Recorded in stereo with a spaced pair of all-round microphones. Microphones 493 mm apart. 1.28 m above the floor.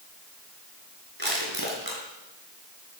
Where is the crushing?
50° right (ahead or behind), 5.5 m.